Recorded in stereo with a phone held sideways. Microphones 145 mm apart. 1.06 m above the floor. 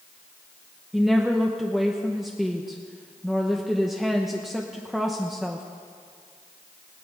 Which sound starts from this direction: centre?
A woman speaking, at 0.9 s.